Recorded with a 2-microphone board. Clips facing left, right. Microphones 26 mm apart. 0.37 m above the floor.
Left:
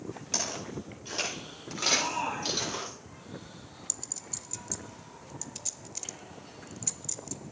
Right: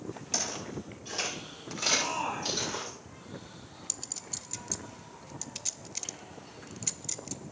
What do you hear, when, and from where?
0.3 s footsteps: 15° left (ahead or behind), 7 m; by 2.9 s 25° left (ahead or behind), 8.5 m
1.9 s a shout: 35° left (ahead or behind), 7 m
3.9 s a clink: 30° right (ahead or behind), 0.6 m